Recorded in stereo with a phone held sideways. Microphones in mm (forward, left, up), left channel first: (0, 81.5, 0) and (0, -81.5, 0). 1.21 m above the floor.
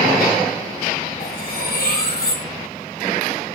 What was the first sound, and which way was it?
Cutlery clinking, 70° left (ahead or behind).